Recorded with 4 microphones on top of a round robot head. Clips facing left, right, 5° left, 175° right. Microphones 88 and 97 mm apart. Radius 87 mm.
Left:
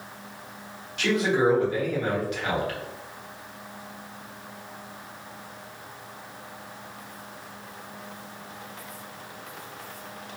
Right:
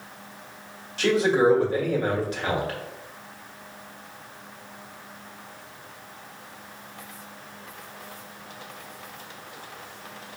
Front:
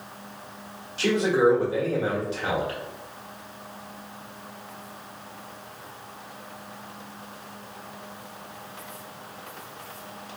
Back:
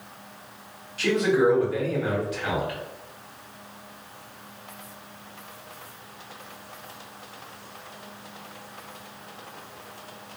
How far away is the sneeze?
No sneeze in this recording.